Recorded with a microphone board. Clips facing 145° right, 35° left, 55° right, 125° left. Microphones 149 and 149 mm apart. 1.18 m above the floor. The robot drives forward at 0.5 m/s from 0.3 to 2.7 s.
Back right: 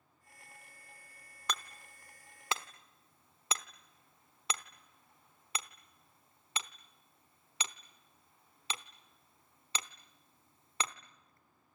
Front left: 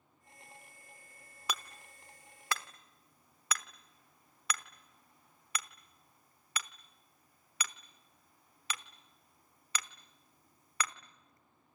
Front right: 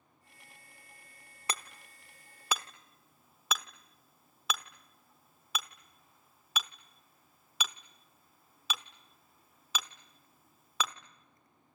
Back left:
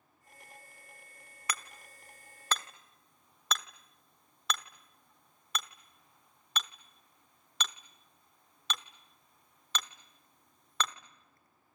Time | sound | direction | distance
1.5 | hammering | 40° right | 0.9 m